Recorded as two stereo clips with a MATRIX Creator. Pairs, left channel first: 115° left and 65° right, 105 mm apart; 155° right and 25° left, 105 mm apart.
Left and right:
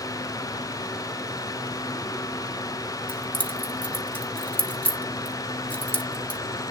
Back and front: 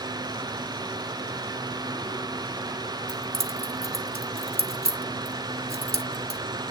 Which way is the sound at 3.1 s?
40° left.